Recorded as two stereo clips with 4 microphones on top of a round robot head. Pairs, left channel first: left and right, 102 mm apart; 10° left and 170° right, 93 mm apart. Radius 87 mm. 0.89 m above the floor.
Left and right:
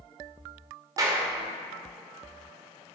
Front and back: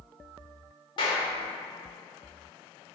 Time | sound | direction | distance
1.0 | a clap | 35° right | 2.5 m